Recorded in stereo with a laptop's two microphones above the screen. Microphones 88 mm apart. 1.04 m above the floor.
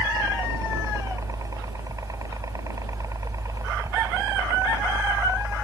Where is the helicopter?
40° right (ahead or behind).